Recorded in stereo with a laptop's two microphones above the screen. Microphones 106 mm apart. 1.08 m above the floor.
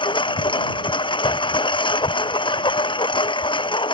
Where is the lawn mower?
50° left (ahead or behind).